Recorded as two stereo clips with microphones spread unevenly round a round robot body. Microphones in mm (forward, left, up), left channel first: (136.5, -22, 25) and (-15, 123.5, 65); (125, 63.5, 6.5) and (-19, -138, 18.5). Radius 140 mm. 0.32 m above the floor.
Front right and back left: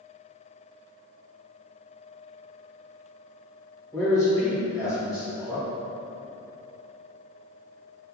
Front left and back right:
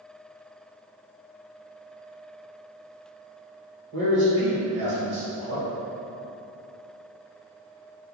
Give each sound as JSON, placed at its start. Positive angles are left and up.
{"t": 3.9, "sound": "a man speaking", "azimuth_deg": -105, "distance_m": 1.3}